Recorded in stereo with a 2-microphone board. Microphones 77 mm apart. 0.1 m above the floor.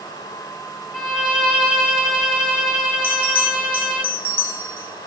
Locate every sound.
0.9 s a violin: 5° left (ahead or behind), 2 m
3.0 s a bell: 25° right (ahead or behind), 3 m